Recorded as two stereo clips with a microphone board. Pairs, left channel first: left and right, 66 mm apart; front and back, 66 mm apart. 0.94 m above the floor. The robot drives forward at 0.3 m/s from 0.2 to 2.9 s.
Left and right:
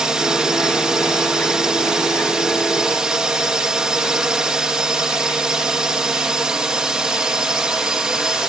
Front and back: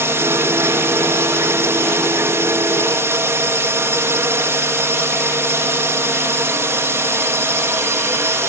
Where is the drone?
165° right.